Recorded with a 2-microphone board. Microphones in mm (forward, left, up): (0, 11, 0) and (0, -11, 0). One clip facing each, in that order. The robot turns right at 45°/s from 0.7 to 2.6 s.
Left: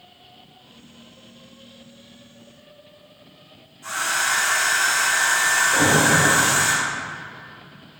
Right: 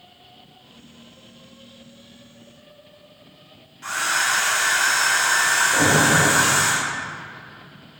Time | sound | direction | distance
3.8 | a hair dryer | 80° right | 2.5 m
5.7 | an alarm | centre (ahead or behind) | 1.5 m